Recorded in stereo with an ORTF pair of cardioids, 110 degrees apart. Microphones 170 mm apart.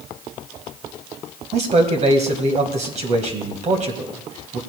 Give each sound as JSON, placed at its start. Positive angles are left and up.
{"t": 1.5, "sound": "a man speaking", "azimuth_deg": -45, "distance_m": 1.7}